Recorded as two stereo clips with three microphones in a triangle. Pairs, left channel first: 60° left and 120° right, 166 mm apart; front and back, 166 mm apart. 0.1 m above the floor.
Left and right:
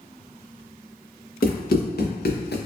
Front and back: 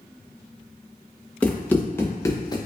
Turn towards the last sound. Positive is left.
turn(degrees=65)